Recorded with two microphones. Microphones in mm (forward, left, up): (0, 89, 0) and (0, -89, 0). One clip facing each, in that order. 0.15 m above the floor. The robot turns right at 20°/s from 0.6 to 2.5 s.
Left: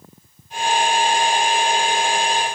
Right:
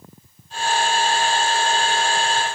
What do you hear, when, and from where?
Only background noise.